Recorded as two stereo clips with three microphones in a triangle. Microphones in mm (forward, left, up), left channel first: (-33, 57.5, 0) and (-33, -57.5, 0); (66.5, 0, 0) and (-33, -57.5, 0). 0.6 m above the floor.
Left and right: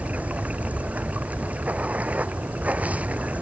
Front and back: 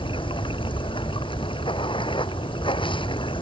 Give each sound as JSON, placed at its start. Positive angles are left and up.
{"t": 0.0, "sound": "running water", "azimuth_deg": -15}